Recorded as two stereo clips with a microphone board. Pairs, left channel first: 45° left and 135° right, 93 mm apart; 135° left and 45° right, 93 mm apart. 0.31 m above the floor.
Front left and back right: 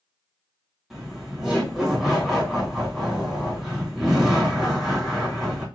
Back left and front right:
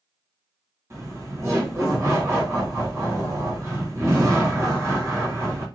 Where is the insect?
I don't hear an insect.